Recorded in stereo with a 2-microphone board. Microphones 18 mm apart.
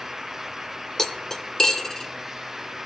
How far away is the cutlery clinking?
About 0.6 m.